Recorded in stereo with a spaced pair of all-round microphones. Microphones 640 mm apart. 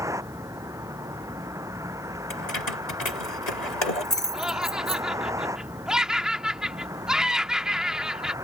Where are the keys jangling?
80° left.